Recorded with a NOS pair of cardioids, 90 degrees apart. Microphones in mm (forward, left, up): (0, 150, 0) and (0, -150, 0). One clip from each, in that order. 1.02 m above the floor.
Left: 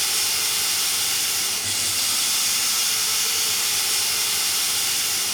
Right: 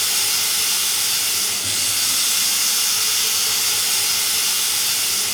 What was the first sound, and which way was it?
Running water, 40° right.